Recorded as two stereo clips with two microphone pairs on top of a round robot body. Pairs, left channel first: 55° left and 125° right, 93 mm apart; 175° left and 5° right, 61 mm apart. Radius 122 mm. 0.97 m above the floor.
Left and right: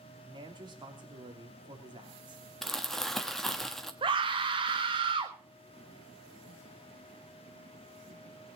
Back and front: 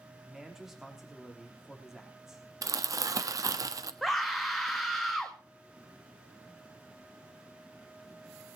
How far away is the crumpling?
About 1.2 m.